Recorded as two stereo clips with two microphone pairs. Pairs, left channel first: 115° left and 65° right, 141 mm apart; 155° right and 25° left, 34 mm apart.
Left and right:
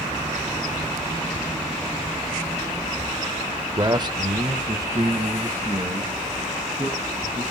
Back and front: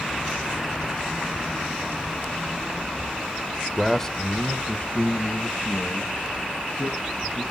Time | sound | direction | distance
3.8 | a man speaking | 45° right | 0.9 m